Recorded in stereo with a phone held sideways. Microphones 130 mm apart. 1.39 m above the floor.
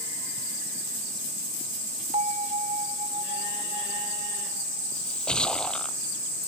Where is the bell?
75° right (ahead or behind).